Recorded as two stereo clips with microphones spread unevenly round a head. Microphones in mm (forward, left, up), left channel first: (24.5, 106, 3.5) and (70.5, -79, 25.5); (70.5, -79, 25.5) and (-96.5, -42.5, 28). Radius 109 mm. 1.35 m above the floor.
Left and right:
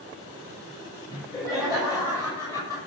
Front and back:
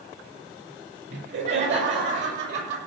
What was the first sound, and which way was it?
Laughter, straight behind.